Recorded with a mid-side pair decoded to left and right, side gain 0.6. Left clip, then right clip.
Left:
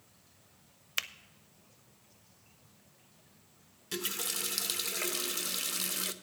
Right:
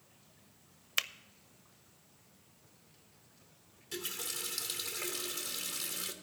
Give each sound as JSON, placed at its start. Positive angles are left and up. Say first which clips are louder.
{"t": 1.0, "sound": "a finger snap", "louder": "right 1 dB", "azimuth_deg": -10, "distance_m": 0.5}
{"t": 3.9, "sound": "a running tap", "louder": "left 4 dB", "azimuth_deg": 35, "distance_m": 0.8}